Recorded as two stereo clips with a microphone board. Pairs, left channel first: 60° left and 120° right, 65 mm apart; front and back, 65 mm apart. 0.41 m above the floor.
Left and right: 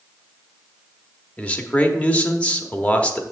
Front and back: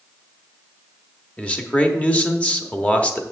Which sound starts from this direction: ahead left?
A man speaking, at 1.4 s.